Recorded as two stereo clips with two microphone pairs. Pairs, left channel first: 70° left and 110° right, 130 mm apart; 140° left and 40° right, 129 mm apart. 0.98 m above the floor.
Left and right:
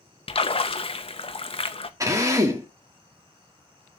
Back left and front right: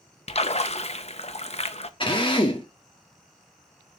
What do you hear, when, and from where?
0.3 s a splash: 110° left, 0.7 m
2.0 s a drill: 175° right, 1.7 m